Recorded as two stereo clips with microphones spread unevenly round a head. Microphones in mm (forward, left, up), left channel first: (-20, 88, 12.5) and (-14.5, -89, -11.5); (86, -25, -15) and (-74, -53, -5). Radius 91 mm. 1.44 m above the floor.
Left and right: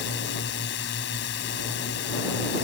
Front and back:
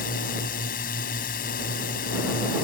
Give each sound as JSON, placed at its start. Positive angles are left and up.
{"t": 0.0, "sound": "a drone", "azimuth_deg": 60}